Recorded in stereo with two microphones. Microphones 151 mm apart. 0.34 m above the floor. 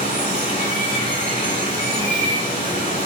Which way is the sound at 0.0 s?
60° left (ahead or behind).